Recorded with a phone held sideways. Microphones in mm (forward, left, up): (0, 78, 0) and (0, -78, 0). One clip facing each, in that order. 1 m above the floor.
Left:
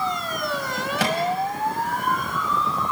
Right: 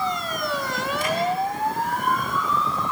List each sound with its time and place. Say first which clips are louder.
1.0 s a microwave: left 3 dB; 80° left, 5 m